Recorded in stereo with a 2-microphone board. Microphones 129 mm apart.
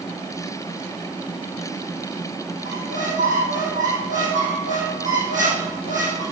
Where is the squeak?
75° right (ahead or behind), 4 m.